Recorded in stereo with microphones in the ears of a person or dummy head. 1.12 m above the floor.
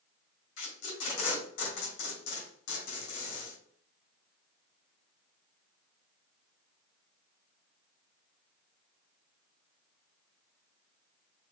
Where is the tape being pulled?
70° left (ahead or behind), 2 m.